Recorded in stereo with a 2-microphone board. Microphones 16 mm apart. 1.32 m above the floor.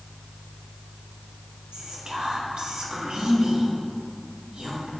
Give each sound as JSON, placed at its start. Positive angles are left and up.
{"t": 1.7, "sound": "whispering", "side_deg": -70, "distance_m": 0.8}